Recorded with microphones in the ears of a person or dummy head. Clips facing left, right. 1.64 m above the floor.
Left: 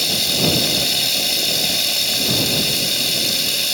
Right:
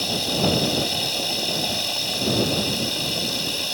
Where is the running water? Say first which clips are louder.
Left 1 dB; 25° left (ahead or behind).